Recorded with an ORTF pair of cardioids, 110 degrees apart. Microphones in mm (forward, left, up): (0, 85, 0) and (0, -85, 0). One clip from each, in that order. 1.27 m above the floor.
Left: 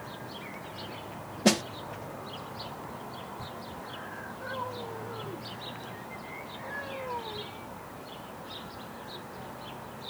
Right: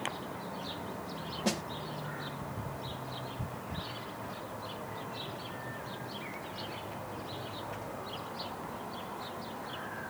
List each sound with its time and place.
1.4 s a snare drum: 45° left